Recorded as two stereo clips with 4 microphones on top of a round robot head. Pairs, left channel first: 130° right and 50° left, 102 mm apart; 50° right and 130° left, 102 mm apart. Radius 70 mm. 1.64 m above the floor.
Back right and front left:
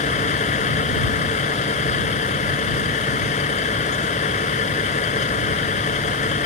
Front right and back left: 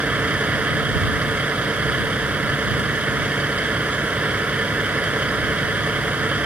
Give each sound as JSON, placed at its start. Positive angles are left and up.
{"t": 0.0, "sound": "a vehicle", "azimuth_deg": -150}